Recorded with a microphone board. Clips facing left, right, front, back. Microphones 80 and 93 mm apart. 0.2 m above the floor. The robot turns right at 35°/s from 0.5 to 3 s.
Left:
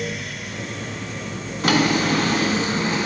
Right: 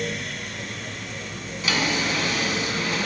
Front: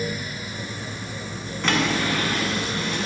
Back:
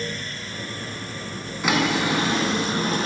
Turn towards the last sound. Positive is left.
turn(degrees=150)